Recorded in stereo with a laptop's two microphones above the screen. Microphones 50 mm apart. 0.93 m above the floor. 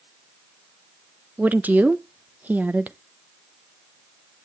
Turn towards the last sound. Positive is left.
turn(degrees=-35)  # may be behind; listen again after turning